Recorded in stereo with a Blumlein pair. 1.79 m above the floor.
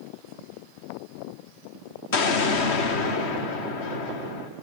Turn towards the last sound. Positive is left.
turn(degrees=50)